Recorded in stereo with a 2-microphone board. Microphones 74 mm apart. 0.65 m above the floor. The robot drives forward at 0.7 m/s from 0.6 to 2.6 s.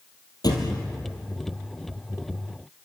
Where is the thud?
65° left (ahead or behind), 3.5 m; by 0.9 s 60° left (ahead or behind), 3.5 m.